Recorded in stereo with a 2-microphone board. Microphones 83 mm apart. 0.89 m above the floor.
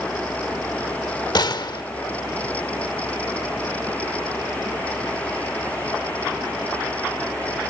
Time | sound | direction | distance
1.4 | a gunshot | 60° left (ahead or behind) | 0.8 m